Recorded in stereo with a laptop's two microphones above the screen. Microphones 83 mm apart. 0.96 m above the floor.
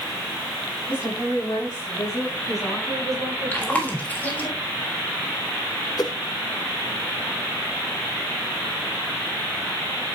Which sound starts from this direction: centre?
Chewing, at 3.5 s.